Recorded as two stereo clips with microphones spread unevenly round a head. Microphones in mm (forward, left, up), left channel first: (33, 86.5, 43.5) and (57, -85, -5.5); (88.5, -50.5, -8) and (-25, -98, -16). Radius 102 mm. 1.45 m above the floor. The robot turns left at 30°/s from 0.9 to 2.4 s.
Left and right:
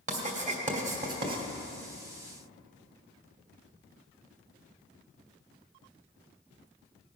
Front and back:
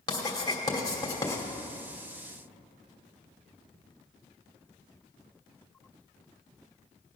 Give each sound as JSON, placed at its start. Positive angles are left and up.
{"t": 0.1, "sound": "writing", "azimuth_deg": -30, "distance_m": 2.5}